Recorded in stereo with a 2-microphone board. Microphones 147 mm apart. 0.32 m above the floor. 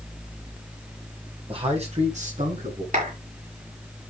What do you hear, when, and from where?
1.5 s a man speaking: 40° right (ahead or behind), 2.5 m; by 2.8 s 65° right (ahead or behind), 3.5 m
2.9 s a clap: 60° right (ahead or behind), 6 m